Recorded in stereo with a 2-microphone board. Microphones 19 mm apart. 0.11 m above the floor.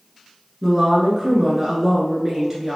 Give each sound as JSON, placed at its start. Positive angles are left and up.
{"t": 0.6, "sound": "a woman speaking", "side_deg": -15, "distance_m": 1.3}